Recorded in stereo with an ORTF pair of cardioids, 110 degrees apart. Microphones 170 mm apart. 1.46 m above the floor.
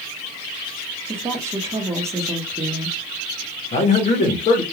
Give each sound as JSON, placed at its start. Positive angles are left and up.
{"t": 1.1, "sound": "a woman speaking", "azimuth_deg": -15, "distance_m": 0.9}
{"t": 3.7, "sound": "a man speaking", "azimuth_deg": 40, "distance_m": 1.0}